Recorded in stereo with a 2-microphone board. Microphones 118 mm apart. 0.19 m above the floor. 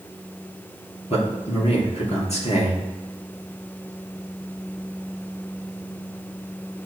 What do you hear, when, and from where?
1.1 s a man speaking: 60° left (ahead or behind), 3 m